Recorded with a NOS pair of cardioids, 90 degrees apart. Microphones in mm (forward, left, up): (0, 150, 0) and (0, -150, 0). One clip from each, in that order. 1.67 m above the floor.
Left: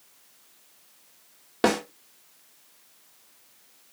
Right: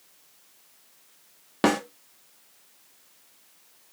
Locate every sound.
1.6 s a snare drum: 10° right, 1.7 m